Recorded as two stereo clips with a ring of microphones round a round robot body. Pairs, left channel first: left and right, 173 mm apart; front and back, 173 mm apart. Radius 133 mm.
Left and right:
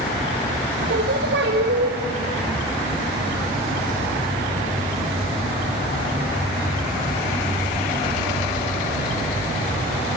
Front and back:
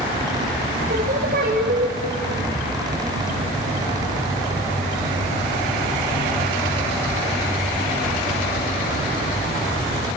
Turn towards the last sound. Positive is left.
turn(degrees=-130)